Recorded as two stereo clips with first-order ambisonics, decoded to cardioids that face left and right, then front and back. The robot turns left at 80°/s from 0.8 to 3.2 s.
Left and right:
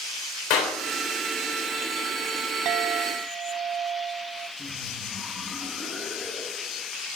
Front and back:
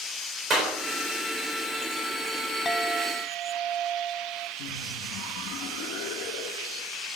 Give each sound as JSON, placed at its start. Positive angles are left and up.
{"t": 0.5, "sound": "a clap", "azimuth_deg": 110, "distance_m": 3.0}
{"t": 2.6, "sound": "a clink", "azimuth_deg": -80, "distance_m": 0.7}
{"t": 4.6, "sound": "laughter", "azimuth_deg": 0, "distance_m": 1.8}